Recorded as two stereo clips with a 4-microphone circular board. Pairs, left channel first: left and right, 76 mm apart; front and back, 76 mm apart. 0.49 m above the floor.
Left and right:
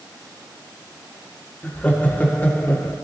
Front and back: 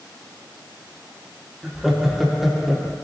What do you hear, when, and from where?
1.6 s laughter: 100° left, 1.2 m